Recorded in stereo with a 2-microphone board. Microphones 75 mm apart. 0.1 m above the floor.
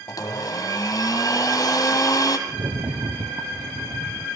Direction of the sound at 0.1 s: 50° left (ahead or behind).